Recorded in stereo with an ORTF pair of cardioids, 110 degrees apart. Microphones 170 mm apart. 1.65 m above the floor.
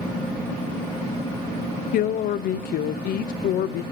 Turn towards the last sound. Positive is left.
turn(degrees=65)